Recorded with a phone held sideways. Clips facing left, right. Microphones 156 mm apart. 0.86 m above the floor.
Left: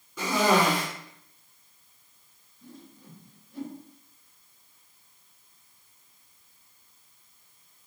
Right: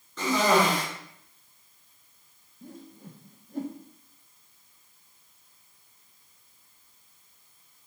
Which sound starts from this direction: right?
A whoosh, at 2.6 s.